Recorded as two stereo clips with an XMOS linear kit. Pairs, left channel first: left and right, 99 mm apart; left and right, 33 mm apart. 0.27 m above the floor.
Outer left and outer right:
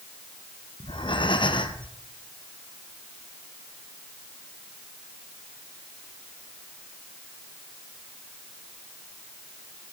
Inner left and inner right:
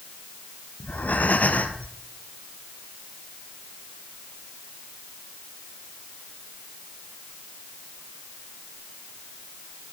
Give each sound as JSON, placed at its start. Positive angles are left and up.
{"t": 0.8, "sound": "breathing", "side_deg": 55, "distance_m": 1.5}